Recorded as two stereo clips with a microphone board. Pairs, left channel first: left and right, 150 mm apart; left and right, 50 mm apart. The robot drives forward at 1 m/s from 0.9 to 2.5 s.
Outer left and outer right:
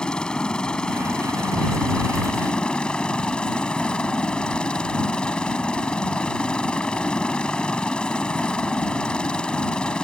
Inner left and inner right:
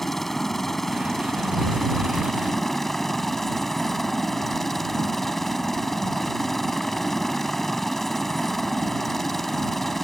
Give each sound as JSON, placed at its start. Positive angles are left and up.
{"t": 0.0, "sound": "a helicopter", "side_deg": 5}